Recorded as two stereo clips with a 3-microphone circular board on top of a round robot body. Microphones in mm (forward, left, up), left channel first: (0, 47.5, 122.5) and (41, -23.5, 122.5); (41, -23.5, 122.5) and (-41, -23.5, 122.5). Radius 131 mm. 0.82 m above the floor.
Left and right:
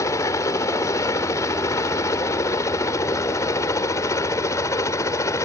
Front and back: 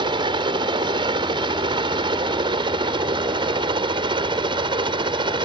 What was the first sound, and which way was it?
A helicopter, 170° left.